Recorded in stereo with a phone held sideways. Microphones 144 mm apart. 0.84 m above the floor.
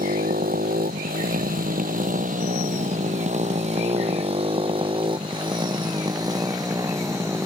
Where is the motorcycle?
85° right; by 7.5 s 20° right (ahead or behind).